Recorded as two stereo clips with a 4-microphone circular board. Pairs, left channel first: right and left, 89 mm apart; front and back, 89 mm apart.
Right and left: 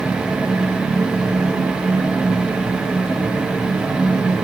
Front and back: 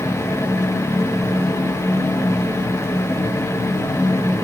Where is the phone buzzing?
I don't hear a phone buzzing.